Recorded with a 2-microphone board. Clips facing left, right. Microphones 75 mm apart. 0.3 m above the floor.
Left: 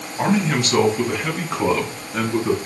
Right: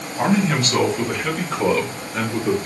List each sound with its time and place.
0.2 s a man speaking: centre (ahead or behind), 1.6 m; by 2.5 s 25° left (ahead or behind), 2.5 m